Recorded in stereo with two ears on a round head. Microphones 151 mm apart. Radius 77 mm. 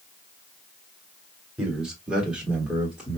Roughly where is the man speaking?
Centre.